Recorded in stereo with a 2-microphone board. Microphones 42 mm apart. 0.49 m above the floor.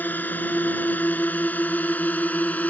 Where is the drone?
45° left (ahead or behind); by 2.7 s 40° left (ahead or behind).